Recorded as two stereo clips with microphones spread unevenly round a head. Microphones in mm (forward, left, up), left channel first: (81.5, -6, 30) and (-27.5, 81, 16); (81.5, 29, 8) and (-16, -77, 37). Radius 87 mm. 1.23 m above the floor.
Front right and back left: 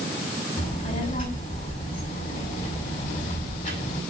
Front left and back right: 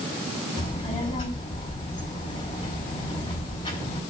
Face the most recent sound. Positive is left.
turn(degrees=-10)